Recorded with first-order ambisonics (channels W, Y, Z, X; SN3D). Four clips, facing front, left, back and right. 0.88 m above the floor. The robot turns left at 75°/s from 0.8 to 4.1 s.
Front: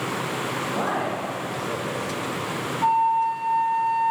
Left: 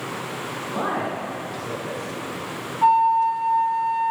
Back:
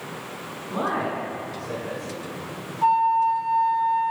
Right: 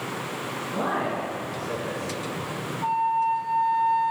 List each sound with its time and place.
0.7 s a man speaking: 135° left, 2.5 m; by 2.1 s 35° left, 2.5 m
2.8 s a flute: 105° left, 1.4 m; by 4.1 s 10° left, 1.4 m